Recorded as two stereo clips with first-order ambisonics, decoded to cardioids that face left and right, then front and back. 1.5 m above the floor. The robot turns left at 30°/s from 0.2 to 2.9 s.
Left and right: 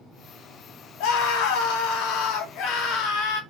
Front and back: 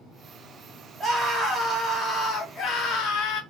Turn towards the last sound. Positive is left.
turn(degrees=45)